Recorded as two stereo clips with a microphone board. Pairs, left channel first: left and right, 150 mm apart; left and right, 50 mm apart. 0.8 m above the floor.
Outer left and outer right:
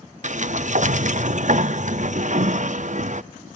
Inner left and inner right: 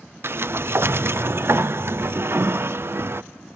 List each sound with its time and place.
0.2 s a sliding door: 55° right (ahead or behind), 0.5 m